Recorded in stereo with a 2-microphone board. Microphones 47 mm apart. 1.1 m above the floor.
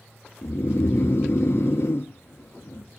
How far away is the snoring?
About 1.1 m.